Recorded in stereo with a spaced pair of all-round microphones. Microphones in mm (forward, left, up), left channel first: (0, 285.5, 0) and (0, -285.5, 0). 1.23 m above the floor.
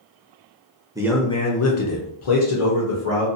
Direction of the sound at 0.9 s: 5° right (ahead or behind).